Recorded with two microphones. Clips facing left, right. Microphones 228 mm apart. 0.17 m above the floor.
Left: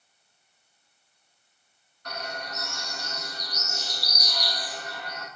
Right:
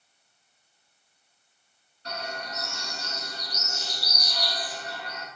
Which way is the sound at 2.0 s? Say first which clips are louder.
Right 1 dB; 30° right (ahead or behind).